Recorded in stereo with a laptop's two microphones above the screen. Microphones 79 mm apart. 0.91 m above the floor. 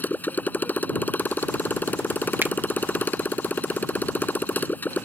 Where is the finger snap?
25° right (ahead or behind).